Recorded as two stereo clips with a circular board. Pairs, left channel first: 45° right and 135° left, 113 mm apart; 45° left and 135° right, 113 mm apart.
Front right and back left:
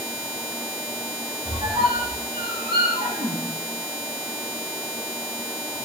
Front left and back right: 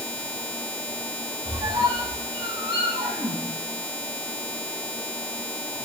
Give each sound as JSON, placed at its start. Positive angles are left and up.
{"t": 1.4, "sound": "a squeak", "azimuth_deg": 175, "distance_m": 3.5}